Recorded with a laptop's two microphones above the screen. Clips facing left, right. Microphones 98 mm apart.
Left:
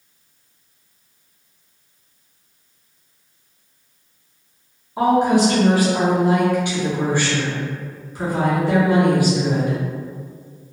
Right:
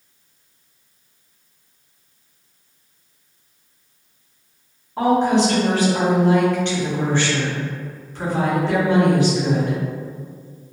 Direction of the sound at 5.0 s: 10° left (ahead or behind).